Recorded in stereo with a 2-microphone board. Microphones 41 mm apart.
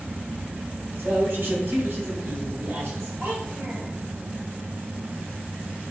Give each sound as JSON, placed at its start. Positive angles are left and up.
{"t": 1.0, "sound": "a man speaking", "side_deg": -60, "distance_m": 4.5}
{"t": 3.2, "sound": "a child speaking", "side_deg": -70, "distance_m": 3.5}